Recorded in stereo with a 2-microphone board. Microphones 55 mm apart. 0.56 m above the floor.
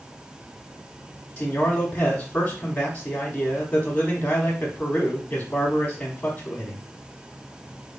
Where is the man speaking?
30° left (ahead or behind), 0.9 m.